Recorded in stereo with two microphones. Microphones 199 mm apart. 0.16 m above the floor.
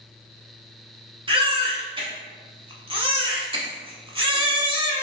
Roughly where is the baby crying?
Right.